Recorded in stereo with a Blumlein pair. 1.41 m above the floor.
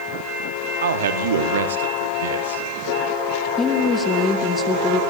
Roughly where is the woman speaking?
Ahead.